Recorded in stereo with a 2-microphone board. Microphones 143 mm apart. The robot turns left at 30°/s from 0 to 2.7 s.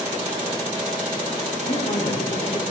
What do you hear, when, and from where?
1.6 s a woman speaking: 70° left (ahead or behind), 8 m; by 2.6 s 45° left (ahead or behind), 8 m